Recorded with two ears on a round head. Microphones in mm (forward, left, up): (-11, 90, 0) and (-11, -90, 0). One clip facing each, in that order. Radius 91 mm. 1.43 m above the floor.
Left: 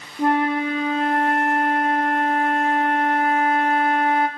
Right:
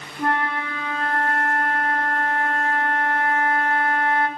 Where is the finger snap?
I don't hear a finger snap.